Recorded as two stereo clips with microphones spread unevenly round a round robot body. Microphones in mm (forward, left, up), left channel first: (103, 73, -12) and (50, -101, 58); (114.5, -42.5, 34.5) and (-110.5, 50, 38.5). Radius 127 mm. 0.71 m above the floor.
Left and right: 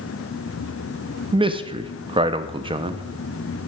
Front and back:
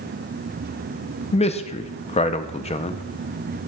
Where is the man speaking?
25° right, 0.6 m.